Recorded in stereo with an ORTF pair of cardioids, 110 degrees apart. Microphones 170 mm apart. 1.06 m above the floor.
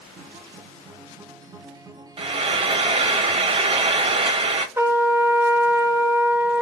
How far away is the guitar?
About 0.7 m.